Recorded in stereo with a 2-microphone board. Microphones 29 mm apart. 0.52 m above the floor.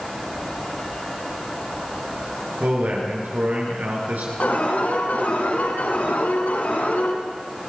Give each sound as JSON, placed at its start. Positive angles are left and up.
{"t": 2.6, "sound": "a man speaking", "side_deg": -75, "distance_m": 9.0}
{"t": 4.4, "sound": "an alarm", "side_deg": 75, "distance_m": 7.5}